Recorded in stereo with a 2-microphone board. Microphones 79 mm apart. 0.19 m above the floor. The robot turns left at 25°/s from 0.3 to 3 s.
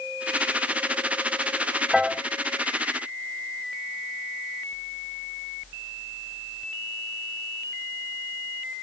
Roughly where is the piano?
Centre.